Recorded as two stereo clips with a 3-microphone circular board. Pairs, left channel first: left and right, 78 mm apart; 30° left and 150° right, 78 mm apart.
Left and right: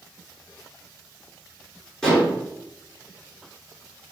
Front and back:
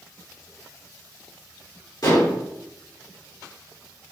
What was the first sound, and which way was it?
Dishes clattering, 10° left.